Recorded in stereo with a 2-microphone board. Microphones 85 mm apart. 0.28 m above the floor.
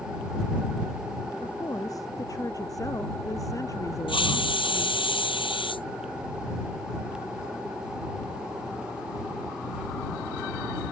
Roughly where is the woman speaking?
Left.